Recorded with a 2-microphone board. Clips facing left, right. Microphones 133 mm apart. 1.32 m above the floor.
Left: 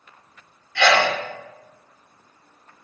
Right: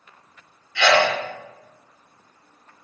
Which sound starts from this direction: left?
A sneeze, at 0.8 s.